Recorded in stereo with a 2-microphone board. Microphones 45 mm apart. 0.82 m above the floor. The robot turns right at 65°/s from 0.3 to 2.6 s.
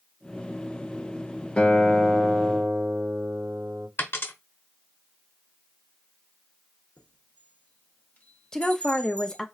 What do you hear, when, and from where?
1.6 s a guitar: 145° left, 0.8 m; by 3.9 s 145° right, 0.8 m
4.0 s a dropped coin: 60° left (ahead or behind), 0.9 m
7.0 s a chime: 40° left (ahead or behind), 0.9 m
8.5 s a woman speaking: 15° left (ahead or behind), 0.6 m